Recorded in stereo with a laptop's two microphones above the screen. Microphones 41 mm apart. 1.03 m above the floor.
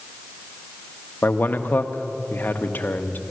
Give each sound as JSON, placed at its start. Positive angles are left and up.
{"t": 1.2, "sound": "a man speaking", "side_deg": 50, "distance_m": 1.0}